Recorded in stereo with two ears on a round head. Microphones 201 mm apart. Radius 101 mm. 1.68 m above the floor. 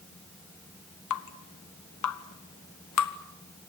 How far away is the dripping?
About 1.3 m.